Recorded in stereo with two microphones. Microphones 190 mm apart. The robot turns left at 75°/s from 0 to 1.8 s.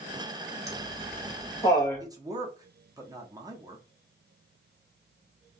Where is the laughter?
55° left (ahead or behind), 1.4 m; by 2.1 s 10° left (ahead or behind), 1.4 m.